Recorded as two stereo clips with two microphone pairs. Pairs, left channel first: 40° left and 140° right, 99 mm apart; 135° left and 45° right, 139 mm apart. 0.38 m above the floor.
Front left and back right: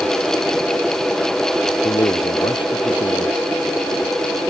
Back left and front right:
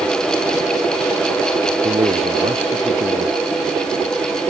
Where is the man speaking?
Straight ahead.